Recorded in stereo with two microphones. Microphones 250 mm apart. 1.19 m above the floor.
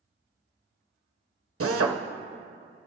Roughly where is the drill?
Right.